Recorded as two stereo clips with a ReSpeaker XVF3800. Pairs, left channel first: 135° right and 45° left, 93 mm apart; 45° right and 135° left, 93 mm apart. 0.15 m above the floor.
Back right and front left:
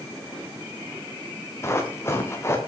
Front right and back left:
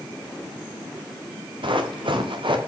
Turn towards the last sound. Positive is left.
turn(degrees=165)